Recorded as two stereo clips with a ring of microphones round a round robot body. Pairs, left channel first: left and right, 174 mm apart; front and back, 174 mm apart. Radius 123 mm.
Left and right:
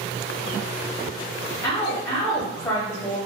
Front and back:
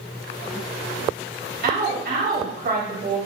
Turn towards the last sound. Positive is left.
turn(degrees=165)